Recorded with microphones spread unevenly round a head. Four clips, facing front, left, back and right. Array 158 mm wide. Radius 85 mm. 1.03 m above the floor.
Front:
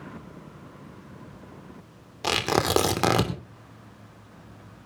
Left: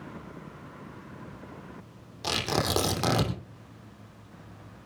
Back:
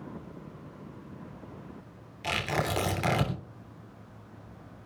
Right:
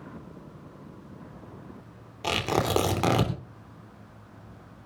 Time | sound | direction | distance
2.2 | tearing paper | 20° right | 3 m